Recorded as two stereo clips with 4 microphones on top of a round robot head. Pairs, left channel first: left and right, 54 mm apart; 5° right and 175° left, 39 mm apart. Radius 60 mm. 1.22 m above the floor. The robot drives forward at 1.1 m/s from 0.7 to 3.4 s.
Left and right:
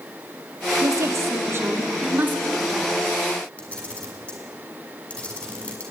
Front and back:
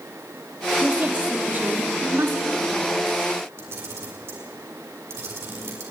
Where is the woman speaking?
120° right, 2.5 m; by 3.0 s 150° right, 4.5 m.